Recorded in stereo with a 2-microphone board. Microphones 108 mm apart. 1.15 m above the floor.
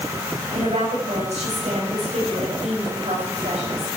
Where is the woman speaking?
80° right, 6.5 m.